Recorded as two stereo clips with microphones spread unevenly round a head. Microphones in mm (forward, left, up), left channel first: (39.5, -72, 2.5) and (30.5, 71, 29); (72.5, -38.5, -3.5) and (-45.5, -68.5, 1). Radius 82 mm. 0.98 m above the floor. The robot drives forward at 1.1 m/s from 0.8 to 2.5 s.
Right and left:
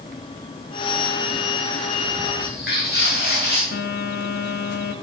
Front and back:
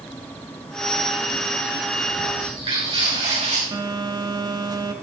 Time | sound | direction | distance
2.4 | footsteps | 120° right | 5.5 m
3.7 | a phone buzzing | 105° right | 1.4 m